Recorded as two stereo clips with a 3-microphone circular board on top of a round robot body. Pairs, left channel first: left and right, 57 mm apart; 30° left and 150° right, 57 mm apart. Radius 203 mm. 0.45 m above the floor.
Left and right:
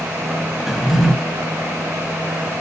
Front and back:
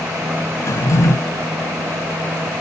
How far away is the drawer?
About 0.7 m.